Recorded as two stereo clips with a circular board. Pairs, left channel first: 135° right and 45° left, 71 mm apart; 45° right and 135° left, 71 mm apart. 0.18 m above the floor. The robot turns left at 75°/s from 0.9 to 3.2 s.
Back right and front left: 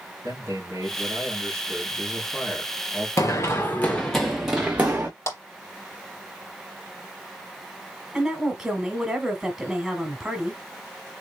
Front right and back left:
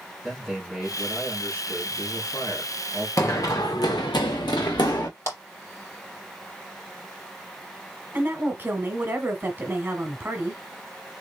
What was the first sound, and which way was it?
A man speaking, 55° left.